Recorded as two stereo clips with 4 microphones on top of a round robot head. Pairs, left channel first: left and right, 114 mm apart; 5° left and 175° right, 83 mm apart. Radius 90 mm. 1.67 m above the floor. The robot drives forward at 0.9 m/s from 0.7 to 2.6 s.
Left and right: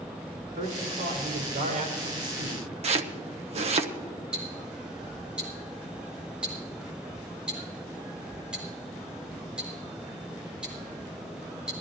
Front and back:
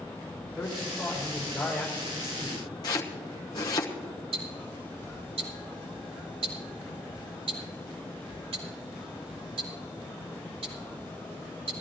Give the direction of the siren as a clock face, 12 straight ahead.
I don't hear a siren.